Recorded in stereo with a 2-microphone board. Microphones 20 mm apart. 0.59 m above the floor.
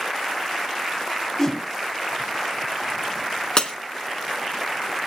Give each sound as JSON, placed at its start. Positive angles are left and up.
{"t": 1.4, "sound": "a whoosh", "side_deg": 30, "distance_m": 1.8}
{"t": 3.6, "sound": "breaking glass", "side_deg": 40, "distance_m": 1.5}